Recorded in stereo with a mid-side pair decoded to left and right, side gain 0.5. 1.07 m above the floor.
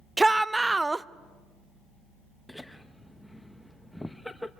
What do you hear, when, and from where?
0.2 s a shout: 15° right, 0.5 m
2.5 s laughter: 5° left, 0.8 m